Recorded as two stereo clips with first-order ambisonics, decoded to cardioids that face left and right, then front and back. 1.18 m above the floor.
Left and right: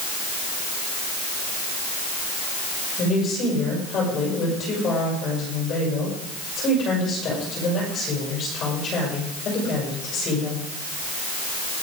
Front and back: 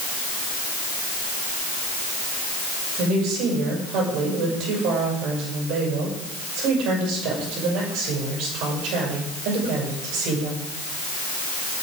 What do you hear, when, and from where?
3.0 s a woman speaking: 145° left, 6.5 m